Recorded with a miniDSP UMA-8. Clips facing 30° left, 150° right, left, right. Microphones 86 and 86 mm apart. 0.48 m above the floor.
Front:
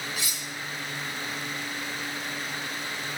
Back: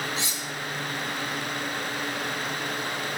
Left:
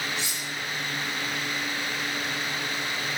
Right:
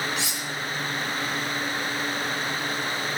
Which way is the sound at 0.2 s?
85° right.